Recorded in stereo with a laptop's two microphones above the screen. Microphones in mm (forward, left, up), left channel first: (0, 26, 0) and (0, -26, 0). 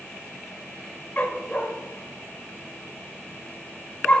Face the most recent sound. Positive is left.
turn(degrees=25)  # may be behind; listen again after turning